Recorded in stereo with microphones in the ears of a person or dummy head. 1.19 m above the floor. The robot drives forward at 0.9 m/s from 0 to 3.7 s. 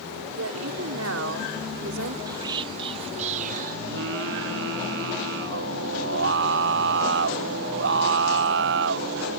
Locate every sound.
0.3 s a woman speaking: 75° right (ahead or behind); by 2.2 s 80° right
2.3 s whispering: 25° right (ahead or behind); by 3.8 s 45° right (ahead or behind)
3.9 s singing: 70° right (ahead or behind)